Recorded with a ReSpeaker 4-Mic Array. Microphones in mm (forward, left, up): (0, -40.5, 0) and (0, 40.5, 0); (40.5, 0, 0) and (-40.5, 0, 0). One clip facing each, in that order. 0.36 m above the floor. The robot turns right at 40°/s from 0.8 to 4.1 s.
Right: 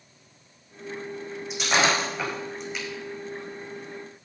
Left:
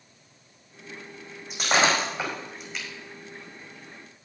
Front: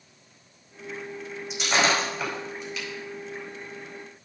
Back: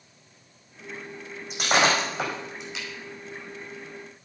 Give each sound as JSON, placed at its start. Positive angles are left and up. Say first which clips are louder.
{"t": 1.5, "sound": "breaking glass", "louder": "left 1 dB, back 2 dB", "azimuth_deg": 135, "distance_m": 5.5}